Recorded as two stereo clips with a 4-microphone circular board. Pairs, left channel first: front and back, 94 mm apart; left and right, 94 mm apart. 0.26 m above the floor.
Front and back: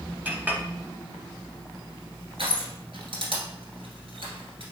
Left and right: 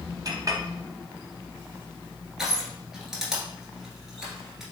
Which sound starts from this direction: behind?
Crushing, at 2.4 s.